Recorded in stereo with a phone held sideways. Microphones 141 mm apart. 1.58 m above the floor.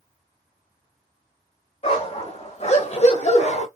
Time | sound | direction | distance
1.8 | a dog barking | 45° left (ahead or behind) | 3.5 m